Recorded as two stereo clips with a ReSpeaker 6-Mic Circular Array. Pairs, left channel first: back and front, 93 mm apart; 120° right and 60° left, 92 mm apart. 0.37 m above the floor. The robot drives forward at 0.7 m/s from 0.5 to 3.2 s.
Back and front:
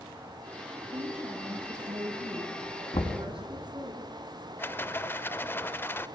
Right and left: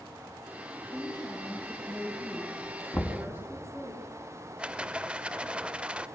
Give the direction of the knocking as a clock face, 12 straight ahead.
7 o'clock.